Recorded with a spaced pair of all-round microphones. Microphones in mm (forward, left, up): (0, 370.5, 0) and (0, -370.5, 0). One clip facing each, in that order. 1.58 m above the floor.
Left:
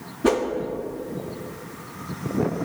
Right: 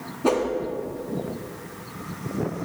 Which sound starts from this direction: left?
A whoosh, at 0.2 s.